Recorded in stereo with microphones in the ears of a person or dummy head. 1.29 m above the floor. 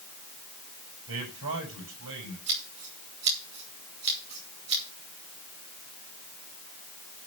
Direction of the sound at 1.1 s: 70° right (ahead or behind).